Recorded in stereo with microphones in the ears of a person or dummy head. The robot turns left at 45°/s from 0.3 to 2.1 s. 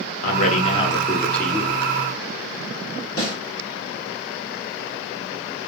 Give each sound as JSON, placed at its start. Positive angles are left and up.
{"t": 0.2, "sound": "a man speaking", "azimuth_deg": 50, "distance_m": 0.6}
{"t": 3.2, "sound": "a snare drum", "side_deg": 55, "distance_m": 1.6}